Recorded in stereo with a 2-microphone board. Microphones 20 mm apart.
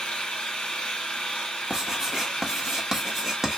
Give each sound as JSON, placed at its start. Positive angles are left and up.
{"t": 0.0, "sound": "an engine running", "side_deg": 80, "distance_m": 1.2}
{"t": 1.7, "sound": "writing", "side_deg": -20, "distance_m": 1.1}